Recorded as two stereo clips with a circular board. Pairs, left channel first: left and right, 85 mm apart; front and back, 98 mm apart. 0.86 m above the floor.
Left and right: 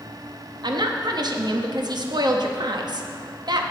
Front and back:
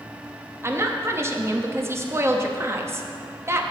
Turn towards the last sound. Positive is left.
turn(degrees=-120)